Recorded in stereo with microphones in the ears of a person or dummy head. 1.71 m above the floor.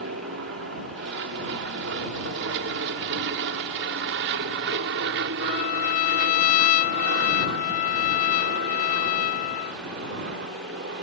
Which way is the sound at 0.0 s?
65° right (ahead or behind).